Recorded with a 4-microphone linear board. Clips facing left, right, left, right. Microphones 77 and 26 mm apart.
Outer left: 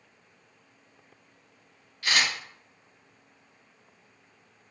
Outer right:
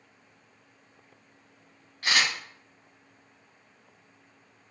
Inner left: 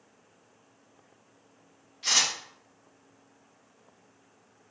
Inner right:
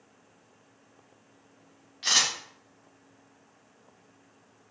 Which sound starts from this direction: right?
A camera shutter, at 2.0 s.